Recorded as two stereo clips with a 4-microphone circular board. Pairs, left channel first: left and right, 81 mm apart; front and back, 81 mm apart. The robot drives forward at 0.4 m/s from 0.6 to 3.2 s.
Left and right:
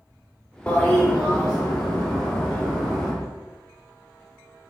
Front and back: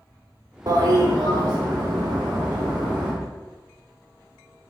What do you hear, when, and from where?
0.7 s a toilet flushing: 160° left, 0.8 m; by 3.1 s 170° left, 1.7 m